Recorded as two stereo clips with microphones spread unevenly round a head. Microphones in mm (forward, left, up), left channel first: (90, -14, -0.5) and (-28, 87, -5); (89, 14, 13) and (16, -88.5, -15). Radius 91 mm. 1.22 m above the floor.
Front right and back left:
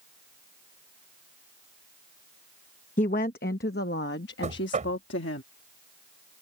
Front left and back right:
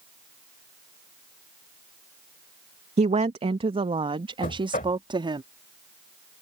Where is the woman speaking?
95° right; by 5.4 s 70° right.